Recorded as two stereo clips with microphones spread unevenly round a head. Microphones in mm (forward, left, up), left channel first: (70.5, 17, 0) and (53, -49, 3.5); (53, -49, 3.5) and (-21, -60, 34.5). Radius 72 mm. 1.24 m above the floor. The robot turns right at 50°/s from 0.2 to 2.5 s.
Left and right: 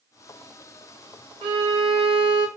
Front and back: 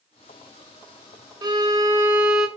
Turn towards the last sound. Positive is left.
turn(degrees=-90)